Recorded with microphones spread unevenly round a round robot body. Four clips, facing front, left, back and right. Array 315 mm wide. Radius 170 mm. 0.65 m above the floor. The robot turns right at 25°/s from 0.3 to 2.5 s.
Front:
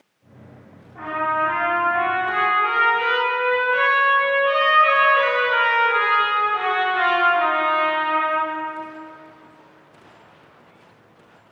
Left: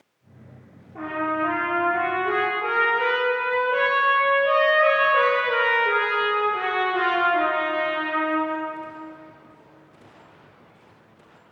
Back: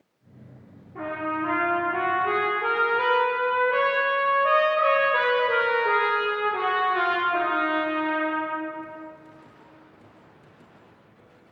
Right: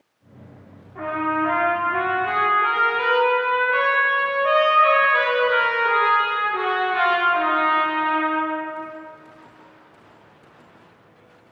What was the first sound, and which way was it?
A trumpet, 135° left.